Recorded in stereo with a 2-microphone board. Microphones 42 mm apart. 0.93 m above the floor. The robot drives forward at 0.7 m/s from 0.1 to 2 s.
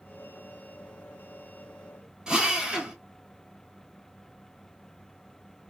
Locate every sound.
2.3 s a drill: 15° right (ahead or behind), 0.9 m